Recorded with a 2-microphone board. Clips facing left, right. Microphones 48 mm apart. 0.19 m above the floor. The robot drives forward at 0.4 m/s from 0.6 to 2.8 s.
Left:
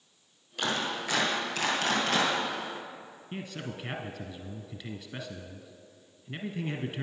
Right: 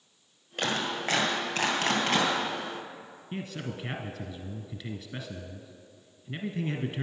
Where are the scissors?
No scissors in this recording.